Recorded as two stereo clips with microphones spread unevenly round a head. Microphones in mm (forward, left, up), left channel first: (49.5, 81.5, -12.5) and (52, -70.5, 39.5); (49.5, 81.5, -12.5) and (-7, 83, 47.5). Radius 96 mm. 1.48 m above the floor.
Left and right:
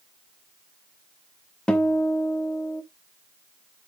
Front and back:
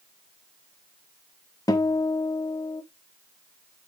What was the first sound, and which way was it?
A guitar, 135° right.